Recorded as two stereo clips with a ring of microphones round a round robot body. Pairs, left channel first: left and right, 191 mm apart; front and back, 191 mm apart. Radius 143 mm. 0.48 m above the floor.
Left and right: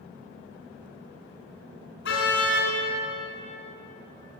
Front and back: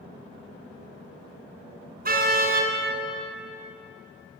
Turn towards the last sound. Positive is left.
turn(degrees=140)